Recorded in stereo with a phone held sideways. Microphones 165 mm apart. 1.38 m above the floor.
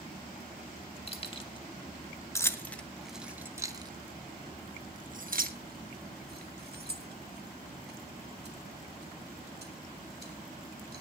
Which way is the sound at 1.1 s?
35° left (ahead or behind).